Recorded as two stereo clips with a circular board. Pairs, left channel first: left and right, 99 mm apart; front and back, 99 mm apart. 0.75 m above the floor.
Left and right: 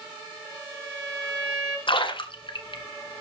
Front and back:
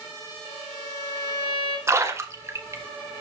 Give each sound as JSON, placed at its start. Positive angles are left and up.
{"t": 0.5, "sound": "a violin", "azimuth_deg": -160, "distance_m": 4.0}
{"t": 1.9, "sound": "a splash", "azimuth_deg": 120, "distance_m": 1.4}